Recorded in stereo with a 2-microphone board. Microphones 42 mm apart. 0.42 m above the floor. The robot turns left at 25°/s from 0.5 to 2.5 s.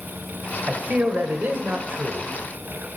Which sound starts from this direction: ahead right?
A man speaking, at 0.7 s.